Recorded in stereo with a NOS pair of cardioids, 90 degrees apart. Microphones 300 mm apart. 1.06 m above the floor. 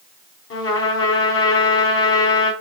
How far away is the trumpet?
About 3 m.